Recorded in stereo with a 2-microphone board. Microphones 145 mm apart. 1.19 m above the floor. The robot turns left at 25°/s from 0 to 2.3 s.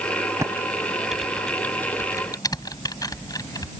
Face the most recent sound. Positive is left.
turn(degrees=25)  # may be behind; listen again after turning